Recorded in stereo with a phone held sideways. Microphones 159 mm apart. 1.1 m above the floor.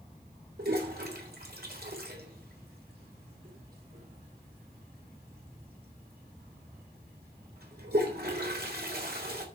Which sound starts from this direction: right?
A toilet flushing, at 0.6 s.